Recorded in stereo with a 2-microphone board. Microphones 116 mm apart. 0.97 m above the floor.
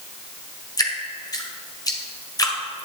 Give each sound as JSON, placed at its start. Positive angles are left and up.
{"t": 0.8, "sound": "dripping", "side_deg": 30, "distance_m": 1.7}